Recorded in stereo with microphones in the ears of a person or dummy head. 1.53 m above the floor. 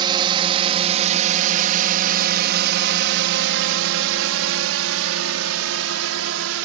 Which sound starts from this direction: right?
A drone, at 0.0 s.